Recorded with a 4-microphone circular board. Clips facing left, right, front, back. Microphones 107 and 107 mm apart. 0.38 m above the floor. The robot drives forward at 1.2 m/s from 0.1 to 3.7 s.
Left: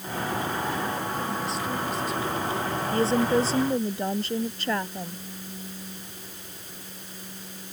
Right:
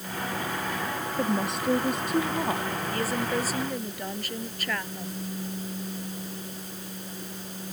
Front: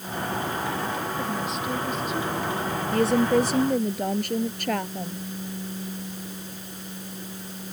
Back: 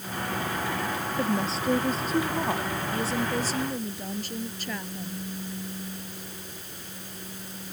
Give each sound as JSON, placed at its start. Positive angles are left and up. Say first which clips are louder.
{"t": 1.2, "sound": "a woman speaking", "louder": "right 2 dB, back 1 dB", "azimuth_deg": -120}
{"t": 2.9, "sound": "a woman speaking", "louder": "left 8 dB, front 10 dB", "azimuth_deg": 25}